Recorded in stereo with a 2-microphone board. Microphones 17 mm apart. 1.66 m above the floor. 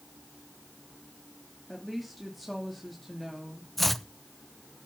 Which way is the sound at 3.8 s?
5° left (ahead or behind).